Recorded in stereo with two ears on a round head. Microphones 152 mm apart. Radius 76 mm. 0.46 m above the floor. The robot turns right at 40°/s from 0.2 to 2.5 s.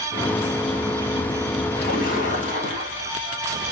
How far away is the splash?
About 2.5 m.